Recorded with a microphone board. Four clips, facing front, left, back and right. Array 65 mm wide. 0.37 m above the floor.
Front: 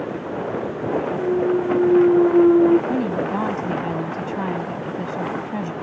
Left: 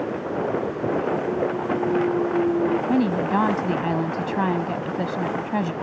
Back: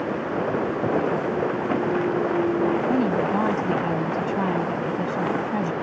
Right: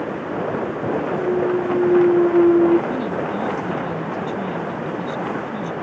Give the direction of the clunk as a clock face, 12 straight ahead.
1 o'clock.